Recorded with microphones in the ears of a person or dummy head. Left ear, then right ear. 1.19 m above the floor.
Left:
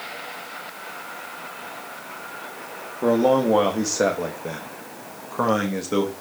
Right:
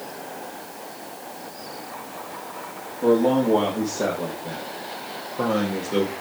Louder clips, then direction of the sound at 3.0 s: Left 1 dB; 55° left (ahead or behind).